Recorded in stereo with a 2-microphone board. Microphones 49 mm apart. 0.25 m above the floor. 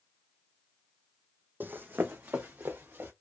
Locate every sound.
1.6 s running footsteps: 45° right (ahead or behind), 0.5 m; by 3.1 s 55° right (ahead or behind), 1.9 m